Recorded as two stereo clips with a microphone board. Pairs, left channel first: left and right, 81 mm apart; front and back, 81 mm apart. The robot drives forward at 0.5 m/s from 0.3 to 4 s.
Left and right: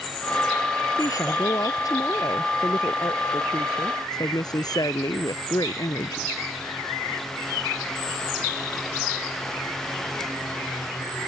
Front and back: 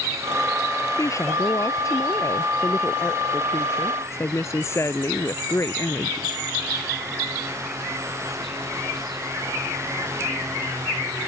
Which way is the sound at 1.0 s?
50° left.